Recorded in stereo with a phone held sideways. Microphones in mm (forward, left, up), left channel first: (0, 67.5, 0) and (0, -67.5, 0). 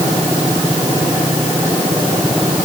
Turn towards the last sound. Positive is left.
No sound to turn to.